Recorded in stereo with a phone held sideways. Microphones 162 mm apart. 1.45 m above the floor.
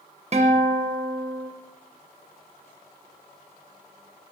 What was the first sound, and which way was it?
A guitar, 45° right (ahead or behind).